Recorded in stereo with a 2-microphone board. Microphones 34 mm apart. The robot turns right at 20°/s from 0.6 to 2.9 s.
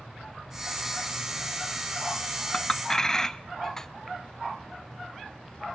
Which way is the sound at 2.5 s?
20° left (ahead or behind).